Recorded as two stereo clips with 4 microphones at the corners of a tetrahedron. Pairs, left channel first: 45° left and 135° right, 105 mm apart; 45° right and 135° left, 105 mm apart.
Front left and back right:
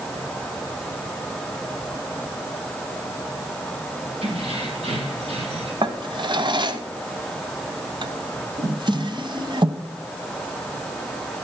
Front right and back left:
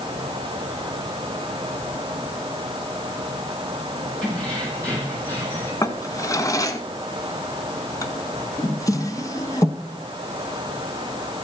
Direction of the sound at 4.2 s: 125° right.